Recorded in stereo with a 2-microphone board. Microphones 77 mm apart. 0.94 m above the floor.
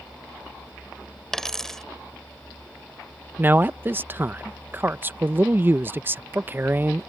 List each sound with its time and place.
1.3 s a dropped coin: 5° left (ahead or behind)
3.4 s a man speaking: 25° right (ahead or behind)